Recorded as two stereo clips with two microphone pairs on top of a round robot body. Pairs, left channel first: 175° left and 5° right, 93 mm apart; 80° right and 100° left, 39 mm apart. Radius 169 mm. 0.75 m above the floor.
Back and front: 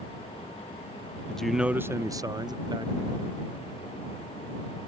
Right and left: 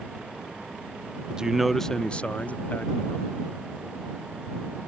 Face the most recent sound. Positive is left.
turn(degrees=-40)